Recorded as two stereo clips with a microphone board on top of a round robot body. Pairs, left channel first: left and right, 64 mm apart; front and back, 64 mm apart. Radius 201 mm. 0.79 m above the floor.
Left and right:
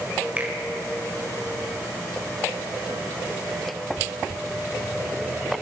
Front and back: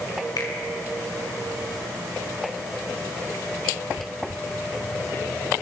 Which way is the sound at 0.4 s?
20° right.